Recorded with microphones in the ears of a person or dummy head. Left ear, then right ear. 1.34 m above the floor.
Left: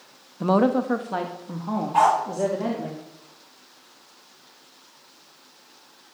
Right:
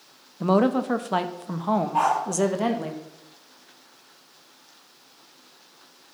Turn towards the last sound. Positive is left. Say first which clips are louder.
# left 5 dB
turn(degrees=25)  # may be behind; listen again after turning